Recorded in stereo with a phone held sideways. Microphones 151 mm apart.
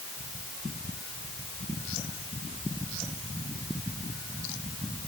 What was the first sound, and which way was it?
Only background noise.